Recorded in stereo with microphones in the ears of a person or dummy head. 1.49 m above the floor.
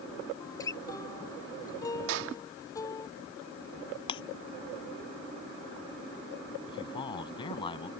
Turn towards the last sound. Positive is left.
turn(degrees=30)  # may be behind; listen again after turning